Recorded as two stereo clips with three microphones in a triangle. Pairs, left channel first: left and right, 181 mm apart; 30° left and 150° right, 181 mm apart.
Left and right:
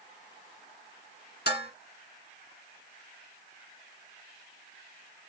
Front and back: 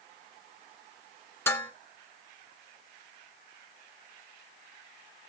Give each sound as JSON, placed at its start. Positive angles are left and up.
{"t": 1.5, "sound": "dishes clattering", "azimuth_deg": 105, "distance_m": 1.8}